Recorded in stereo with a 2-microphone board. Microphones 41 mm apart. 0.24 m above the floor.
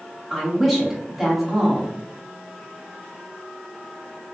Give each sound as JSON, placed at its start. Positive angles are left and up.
{"t": 0.3, "sound": "a woman speaking", "side_deg": 0, "distance_m": 0.9}